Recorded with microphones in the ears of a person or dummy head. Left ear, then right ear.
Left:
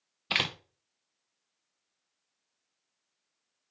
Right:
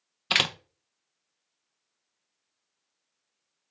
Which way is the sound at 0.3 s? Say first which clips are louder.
Right 5 dB; 20° right (ahead or behind).